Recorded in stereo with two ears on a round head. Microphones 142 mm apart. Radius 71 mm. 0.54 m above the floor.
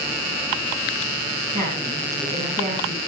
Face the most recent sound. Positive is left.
turn(degrees=-45)  # may be behind; listen again after turning